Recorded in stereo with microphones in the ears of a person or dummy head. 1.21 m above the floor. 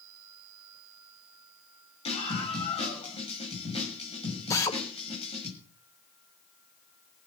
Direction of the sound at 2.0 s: 30° left (ahead or behind).